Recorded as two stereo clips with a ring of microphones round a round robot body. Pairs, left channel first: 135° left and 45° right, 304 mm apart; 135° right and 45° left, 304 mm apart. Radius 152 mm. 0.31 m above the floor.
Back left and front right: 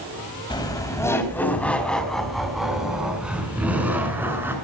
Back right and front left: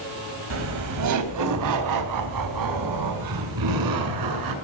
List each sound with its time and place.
0.5 s laughter: 60° left, 2.5 m; by 4.5 s 40° left, 5 m